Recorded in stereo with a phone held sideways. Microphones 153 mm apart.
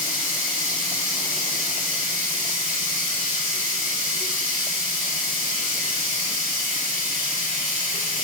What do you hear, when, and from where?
0.0 s running water: 65° right (ahead or behind), 4 m